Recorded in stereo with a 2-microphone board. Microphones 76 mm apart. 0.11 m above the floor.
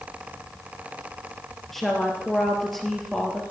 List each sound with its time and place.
1.7 s a woman speaking: 5° left (ahead or behind), 2 m